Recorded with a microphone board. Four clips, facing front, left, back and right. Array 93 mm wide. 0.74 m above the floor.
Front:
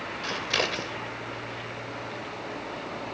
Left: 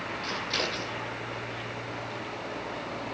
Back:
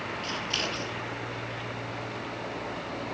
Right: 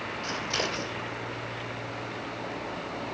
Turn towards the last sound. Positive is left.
turn(degrees=-10)